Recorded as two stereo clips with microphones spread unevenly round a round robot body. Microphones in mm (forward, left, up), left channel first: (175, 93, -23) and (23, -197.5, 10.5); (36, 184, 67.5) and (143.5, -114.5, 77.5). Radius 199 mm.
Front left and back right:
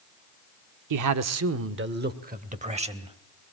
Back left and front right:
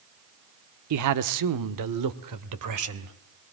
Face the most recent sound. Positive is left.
turn(degrees=-40)